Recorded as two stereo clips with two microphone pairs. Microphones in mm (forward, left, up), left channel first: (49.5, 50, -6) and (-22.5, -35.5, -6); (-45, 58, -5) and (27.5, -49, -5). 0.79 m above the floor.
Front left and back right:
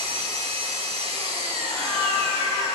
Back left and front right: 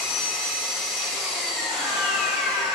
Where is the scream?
Straight ahead, 3 m.